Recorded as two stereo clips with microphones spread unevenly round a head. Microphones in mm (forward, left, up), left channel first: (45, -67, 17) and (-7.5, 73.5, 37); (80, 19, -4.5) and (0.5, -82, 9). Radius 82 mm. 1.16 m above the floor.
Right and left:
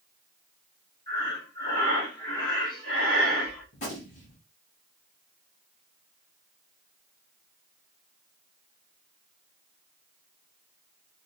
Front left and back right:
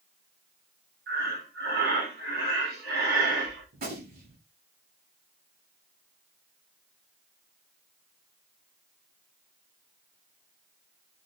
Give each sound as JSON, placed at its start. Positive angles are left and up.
{"t": 1.1, "sound": "breathing", "azimuth_deg": -135, "distance_m": 6.0}
{"t": 3.7, "sound": "a gunshot", "azimuth_deg": -120, "distance_m": 6.5}